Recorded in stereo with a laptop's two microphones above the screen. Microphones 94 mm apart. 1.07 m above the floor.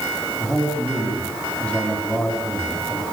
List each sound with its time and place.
0.4 s a man speaking: 10° left (ahead or behind), 6.5 m